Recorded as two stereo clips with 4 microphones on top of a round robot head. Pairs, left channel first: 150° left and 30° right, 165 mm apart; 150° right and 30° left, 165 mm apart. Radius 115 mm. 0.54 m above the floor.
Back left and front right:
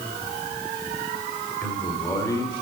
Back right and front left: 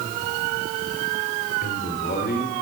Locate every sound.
1.6 s a man speaking: 135° right, 2.5 m; by 2.6 s 150° right, 2.5 m